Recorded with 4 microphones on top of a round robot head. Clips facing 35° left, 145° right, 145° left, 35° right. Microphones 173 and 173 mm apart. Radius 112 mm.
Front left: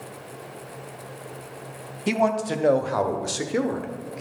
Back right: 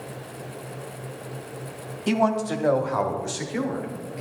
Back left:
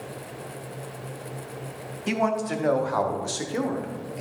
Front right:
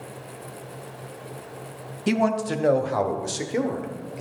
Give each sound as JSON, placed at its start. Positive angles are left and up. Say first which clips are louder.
{"t": 2.1, "sound": "a man speaking", "louder": "even, front right 3 dB", "azimuth_deg": -45, "distance_m": 1.0}